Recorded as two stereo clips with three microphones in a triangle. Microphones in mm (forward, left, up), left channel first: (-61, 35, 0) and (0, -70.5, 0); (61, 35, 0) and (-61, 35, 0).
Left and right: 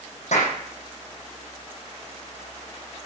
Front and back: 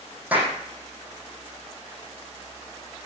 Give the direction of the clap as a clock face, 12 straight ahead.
9 o'clock.